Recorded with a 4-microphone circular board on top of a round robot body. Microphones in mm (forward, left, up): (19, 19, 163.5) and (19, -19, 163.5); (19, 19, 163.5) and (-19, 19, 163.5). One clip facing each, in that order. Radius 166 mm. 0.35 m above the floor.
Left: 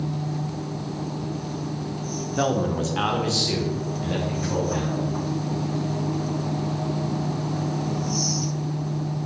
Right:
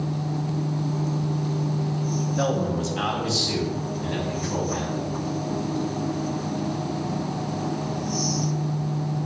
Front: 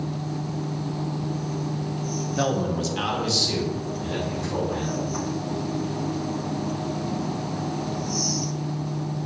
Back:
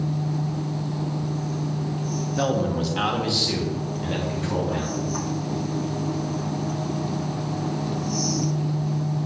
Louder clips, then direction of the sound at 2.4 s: Left 3 dB, back 1 dB; 80° left.